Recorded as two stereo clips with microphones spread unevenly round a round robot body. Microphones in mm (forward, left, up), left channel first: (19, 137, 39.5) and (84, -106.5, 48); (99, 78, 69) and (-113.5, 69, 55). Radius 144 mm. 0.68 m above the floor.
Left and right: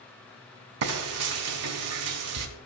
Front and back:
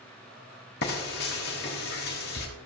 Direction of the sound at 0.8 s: 50° right.